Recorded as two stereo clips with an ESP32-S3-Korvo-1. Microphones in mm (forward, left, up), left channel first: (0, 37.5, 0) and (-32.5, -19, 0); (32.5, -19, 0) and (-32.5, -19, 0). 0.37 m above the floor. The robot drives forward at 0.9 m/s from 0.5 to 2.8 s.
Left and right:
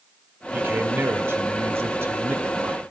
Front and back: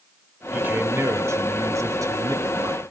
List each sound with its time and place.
0.5 s a man speaking: 135° right, 1.1 m; by 2.8 s 170° right, 2.5 m